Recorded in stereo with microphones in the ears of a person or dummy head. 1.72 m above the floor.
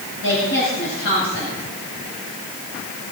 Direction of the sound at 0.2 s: 80° left.